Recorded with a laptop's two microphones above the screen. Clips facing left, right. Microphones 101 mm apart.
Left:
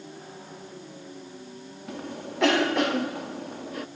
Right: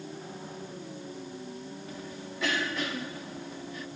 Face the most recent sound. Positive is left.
turn(degrees=65)  # may be behind; listen again after turning